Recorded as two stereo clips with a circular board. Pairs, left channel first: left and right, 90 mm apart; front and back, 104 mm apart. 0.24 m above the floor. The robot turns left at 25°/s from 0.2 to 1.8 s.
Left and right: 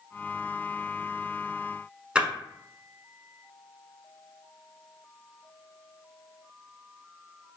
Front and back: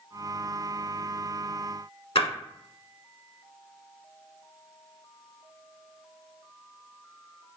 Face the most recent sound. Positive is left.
turn(degrees=-10)